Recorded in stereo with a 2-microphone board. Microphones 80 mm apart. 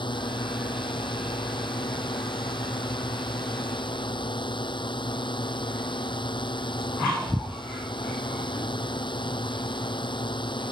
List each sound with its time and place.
0.0 s a drone: 80° left